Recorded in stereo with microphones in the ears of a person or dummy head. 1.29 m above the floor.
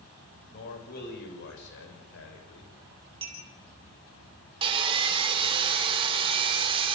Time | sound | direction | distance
0.5 | a man speaking | 50° left (ahead or behind) | 7 m
3.2 | a clink | 30° right (ahead or behind) | 3 m
4.6 | sawing | 30° right (ahead or behind) | 3.5 m